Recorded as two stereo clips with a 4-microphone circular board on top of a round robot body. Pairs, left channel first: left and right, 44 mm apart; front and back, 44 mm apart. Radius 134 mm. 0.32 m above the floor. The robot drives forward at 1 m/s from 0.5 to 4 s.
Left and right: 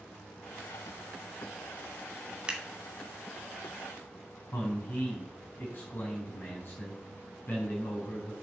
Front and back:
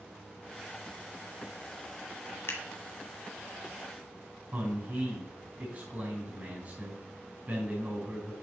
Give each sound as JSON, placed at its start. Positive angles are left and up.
{"t": 2.5, "sound": "scissors", "azimuth_deg": -20, "distance_m": 2.5}
{"t": 4.5, "sound": "a man speaking", "azimuth_deg": 130, "distance_m": 4.0}